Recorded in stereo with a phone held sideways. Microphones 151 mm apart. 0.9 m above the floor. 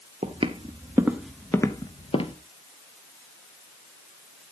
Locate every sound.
0.2 s footsteps: 45° right (ahead or behind), 1.2 m; by 2.4 s 40° left (ahead or behind), 1.2 m